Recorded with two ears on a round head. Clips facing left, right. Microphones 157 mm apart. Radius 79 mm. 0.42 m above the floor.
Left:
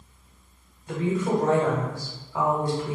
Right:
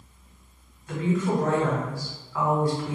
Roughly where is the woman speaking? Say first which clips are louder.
Even; left.